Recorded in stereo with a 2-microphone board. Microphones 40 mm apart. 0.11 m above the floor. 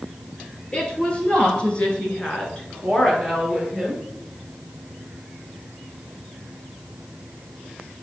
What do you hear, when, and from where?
0.7 s a woman speaking: 25° left (ahead or behind), 2.5 m; by 4.0 s 10° left (ahead or behind), 2 m